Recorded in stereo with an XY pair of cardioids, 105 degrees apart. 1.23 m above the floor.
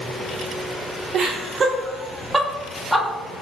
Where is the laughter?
60° right, 0.9 m; by 3.1 s 5° left, 1.4 m.